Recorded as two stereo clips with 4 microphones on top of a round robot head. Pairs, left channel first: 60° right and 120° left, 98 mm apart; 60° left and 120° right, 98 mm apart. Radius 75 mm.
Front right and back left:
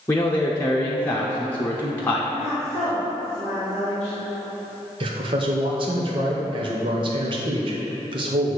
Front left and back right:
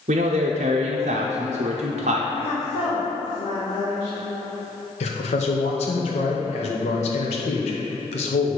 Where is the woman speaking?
20° left, 1.9 m.